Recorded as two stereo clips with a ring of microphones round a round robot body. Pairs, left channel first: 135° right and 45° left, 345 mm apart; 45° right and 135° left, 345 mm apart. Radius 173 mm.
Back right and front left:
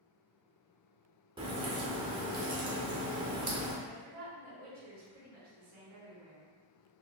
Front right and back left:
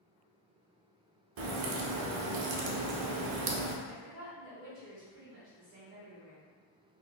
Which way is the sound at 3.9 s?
70° left.